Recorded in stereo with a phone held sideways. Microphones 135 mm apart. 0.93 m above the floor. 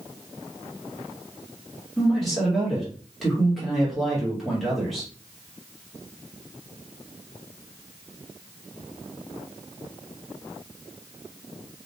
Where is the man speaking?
Centre (ahead or behind), 1.1 m.